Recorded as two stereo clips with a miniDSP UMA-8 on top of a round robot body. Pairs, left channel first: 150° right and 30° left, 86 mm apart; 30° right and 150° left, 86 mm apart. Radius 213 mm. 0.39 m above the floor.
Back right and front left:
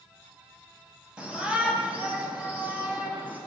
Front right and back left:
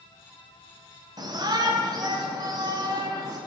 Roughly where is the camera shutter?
No camera shutter in this recording.